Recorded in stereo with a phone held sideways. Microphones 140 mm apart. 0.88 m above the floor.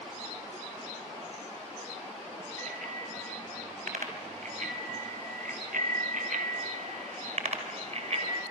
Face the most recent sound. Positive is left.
turn(degrees=-50)  # may be behind; listen again after turning